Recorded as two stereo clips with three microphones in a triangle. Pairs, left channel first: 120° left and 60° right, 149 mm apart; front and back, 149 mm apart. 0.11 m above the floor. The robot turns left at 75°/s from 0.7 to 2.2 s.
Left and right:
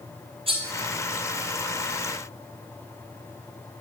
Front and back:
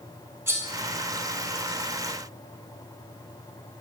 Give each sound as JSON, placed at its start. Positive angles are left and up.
{"t": 0.5, "sound": "cutlery clinking", "azimuth_deg": -105, "distance_m": 1.6}